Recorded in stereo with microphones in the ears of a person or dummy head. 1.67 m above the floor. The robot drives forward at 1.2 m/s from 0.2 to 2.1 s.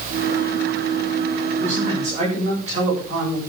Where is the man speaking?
35° right (ahead or behind), 7.5 m.